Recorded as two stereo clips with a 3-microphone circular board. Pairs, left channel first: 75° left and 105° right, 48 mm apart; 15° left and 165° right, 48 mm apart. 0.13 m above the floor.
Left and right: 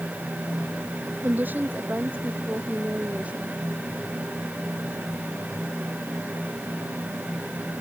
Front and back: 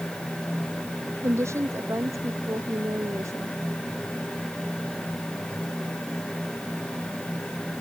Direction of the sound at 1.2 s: 155° right.